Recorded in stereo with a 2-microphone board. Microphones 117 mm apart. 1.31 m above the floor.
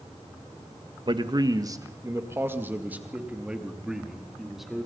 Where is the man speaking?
40° right (ahead or behind), 1.5 m; by 4.9 s centre (ahead or behind), 3.5 m.